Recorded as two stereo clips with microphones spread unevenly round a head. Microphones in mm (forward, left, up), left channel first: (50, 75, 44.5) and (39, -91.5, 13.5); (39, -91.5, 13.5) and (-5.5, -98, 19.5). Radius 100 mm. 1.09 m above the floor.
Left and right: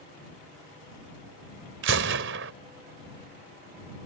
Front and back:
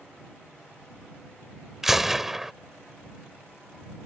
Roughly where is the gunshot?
Right.